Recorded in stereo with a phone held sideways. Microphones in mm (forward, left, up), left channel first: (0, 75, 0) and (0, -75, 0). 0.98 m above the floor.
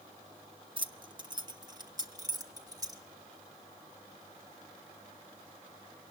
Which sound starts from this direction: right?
Keys jangling, at 0.8 s.